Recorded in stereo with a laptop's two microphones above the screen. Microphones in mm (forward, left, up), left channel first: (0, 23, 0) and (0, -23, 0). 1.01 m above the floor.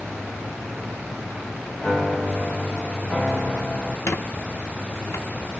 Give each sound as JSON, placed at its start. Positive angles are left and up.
{"t": 1.8, "sound": "a piano", "side_deg": 30, "distance_m": 1.5}
{"t": 4.1, "sound": "a squeak", "side_deg": 65, "distance_m": 0.9}